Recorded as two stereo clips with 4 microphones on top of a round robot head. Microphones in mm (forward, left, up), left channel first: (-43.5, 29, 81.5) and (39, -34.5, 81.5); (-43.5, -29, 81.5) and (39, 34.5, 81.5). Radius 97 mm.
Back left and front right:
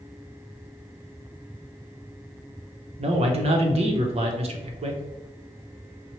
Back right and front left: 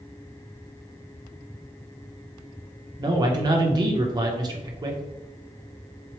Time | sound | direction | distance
3.0 | a man speaking | 15° right | 0.9 m